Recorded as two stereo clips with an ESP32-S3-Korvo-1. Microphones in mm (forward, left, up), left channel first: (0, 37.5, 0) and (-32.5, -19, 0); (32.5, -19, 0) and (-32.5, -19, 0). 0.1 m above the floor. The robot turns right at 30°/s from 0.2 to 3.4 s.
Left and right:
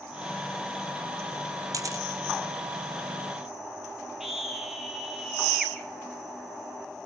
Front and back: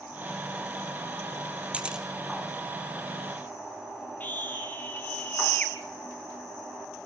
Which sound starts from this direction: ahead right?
A scream, at 4.2 s.